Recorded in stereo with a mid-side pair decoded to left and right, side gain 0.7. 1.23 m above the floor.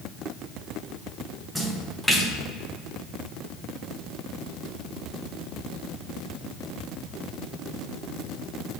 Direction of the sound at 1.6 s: 5° right.